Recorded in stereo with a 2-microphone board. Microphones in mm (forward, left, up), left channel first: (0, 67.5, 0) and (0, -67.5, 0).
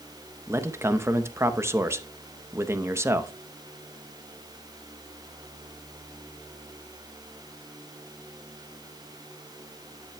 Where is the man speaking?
20° right (ahead or behind), 0.7 m.